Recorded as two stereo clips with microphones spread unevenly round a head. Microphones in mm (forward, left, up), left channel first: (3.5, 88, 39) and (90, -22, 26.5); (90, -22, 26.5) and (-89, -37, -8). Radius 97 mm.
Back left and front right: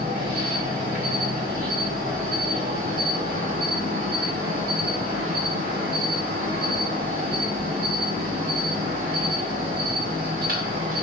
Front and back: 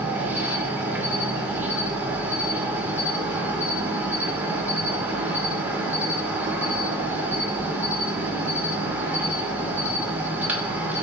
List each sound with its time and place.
0.0 s an insect: 95° right, 0.8 m